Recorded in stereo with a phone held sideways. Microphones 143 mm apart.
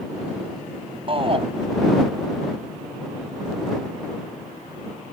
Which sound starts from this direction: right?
A shout, at 1.1 s.